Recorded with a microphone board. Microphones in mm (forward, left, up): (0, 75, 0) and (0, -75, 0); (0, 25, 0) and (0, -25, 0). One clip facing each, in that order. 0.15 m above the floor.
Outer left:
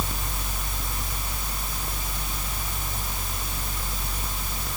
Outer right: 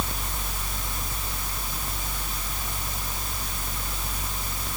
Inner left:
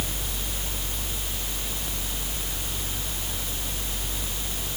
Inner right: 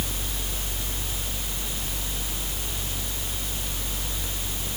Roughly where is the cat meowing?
No cat meowing in this recording.